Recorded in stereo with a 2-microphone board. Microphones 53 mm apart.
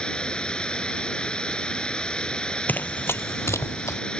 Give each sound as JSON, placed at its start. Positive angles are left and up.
{"t": 0.0, "sound": "running water", "side_deg": 15}
{"t": 2.7, "sound": "running footsteps", "side_deg": 30}